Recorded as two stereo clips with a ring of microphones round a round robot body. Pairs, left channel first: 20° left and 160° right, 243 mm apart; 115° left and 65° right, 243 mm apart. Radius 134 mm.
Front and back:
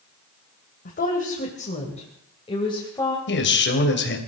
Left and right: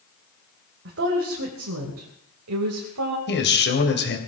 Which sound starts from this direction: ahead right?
A woman speaking, at 0.8 s.